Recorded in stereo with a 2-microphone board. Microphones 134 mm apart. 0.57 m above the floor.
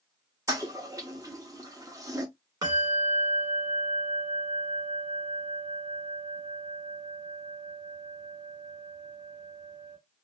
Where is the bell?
30° right (ahead or behind), 1.6 m.